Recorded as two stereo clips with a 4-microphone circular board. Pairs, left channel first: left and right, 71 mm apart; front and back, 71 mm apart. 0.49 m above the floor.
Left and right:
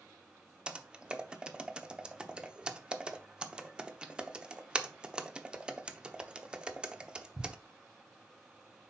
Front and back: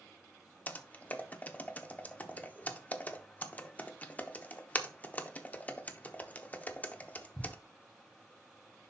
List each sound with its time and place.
0.7 s typing on a keyboard: 30° right, 0.7 m